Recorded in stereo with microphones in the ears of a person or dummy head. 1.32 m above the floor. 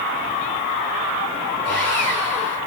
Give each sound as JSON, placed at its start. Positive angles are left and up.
{"t": 1.6, "sound": "sawing", "side_deg": 10, "distance_m": 2.5}